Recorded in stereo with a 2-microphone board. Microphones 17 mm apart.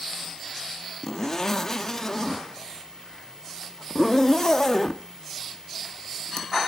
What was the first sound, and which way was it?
A zipper, 30° left (ahead or behind).